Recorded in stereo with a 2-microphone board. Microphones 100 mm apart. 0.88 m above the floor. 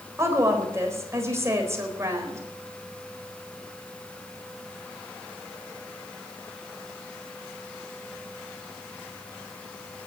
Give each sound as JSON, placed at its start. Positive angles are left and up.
{"t": 0.2, "sound": "a woman speaking", "side_deg": -25, "distance_m": 4.0}